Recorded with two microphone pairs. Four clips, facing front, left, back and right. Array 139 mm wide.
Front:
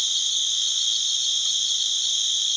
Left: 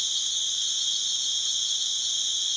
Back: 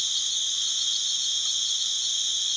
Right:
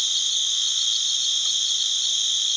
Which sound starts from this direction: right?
An insect, at 0.0 s.